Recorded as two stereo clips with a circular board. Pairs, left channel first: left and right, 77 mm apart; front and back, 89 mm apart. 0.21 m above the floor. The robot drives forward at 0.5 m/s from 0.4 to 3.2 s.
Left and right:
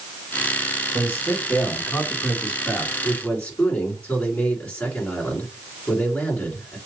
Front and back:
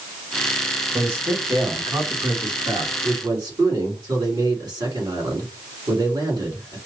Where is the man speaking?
135° left, 1.4 m; by 6.8 s 160° left, 2 m.